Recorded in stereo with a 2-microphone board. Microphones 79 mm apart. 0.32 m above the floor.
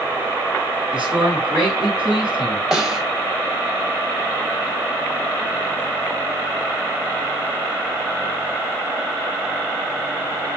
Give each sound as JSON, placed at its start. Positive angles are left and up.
{"t": 0.9, "sound": "a man speaking", "side_deg": -15, "distance_m": 4.5}
{"t": 2.7, "sound": "a snare drum", "side_deg": 0, "distance_m": 1.4}